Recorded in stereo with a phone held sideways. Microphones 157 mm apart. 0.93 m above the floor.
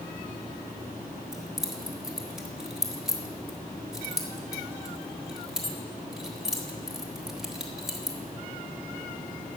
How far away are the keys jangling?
About 1.3 m.